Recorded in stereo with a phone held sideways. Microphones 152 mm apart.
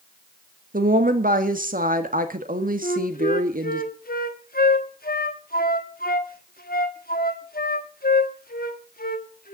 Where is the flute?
80° left, 1.2 m.